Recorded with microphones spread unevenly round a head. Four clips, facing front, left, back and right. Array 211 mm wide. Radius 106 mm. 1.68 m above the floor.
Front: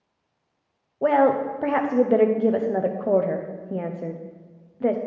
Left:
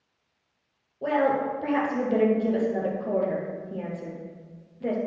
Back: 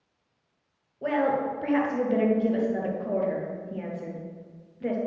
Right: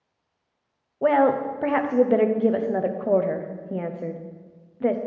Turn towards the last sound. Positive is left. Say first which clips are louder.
# right 5 dB, front 6 dB
turn(degrees=-35)